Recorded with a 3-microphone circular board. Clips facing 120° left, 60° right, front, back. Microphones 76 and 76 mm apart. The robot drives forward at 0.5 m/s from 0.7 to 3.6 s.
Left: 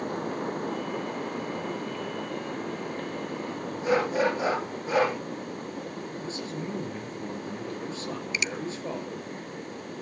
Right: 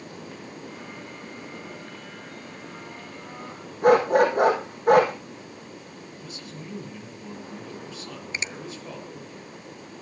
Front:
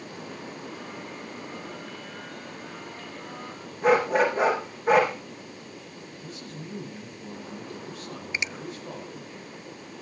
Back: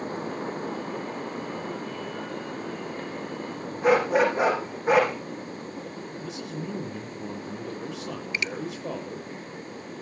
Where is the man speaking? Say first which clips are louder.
Left 6 dB, back 6 dB; 175° left, 8 m.